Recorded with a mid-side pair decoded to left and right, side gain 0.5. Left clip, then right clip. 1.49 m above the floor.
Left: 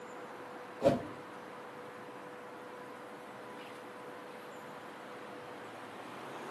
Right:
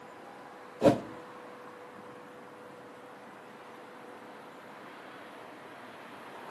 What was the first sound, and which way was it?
A whoosh, 50° right.